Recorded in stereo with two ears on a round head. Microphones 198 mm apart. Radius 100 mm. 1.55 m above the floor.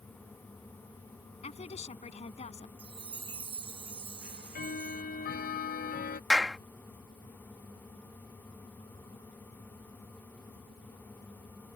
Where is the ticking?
45° left (ahead or behind).